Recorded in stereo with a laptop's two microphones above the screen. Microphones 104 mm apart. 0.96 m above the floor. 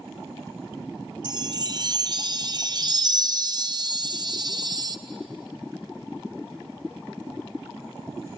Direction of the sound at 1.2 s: 40° right (ahead or behind).